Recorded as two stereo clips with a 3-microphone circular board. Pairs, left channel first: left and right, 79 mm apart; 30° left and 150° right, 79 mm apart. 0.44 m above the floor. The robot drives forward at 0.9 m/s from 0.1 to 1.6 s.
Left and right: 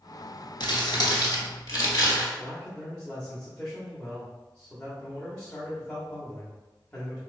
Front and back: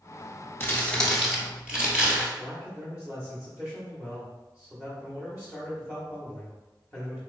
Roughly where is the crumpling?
Left.